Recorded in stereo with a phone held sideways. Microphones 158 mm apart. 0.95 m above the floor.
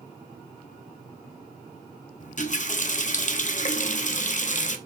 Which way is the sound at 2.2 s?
50° left (ahead or behind).